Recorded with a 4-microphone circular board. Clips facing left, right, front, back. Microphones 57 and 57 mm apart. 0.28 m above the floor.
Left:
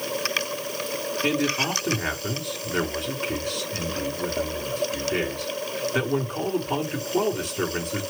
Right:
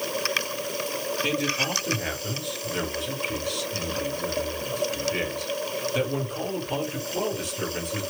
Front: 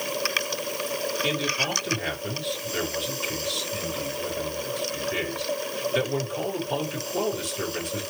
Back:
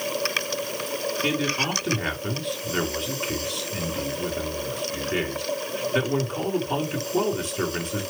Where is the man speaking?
130° left, 4 m.